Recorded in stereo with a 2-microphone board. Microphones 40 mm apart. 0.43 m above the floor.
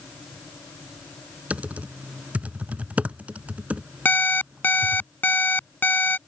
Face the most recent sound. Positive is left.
turn(degrees=55)  # may be behind; listen again after turning